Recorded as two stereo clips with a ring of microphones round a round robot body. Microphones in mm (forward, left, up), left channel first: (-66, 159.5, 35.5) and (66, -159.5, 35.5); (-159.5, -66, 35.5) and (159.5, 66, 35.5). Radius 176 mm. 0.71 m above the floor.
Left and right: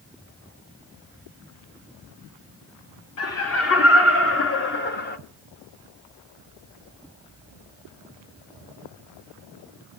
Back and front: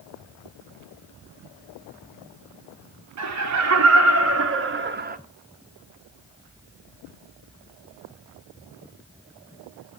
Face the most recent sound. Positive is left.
turn(degrees=70)